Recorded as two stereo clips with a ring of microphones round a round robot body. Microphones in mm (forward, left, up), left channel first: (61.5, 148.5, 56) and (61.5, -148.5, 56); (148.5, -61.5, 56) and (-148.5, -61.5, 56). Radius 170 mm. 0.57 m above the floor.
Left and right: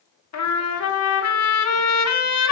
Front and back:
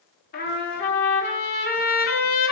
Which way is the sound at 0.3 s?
60° left.